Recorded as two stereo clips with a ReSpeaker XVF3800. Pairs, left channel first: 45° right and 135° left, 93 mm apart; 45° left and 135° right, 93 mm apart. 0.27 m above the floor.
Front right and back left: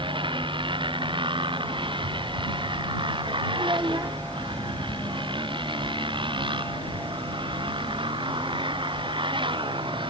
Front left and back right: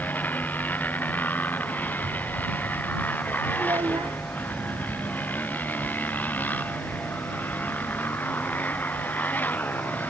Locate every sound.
0.0 s a motorcycle: 115° left
3.6 s a child speaking: 175° right